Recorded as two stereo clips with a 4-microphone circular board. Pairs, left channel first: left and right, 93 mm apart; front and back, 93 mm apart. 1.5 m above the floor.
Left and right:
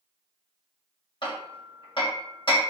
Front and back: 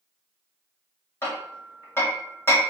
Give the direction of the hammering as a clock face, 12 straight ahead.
10 o'clock.